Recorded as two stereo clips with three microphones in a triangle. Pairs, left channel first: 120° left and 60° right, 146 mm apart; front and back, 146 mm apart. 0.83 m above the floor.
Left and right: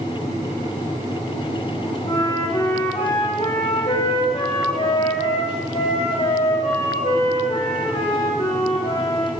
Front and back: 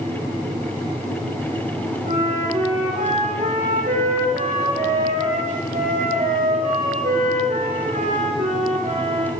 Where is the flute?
160° left, 5 m.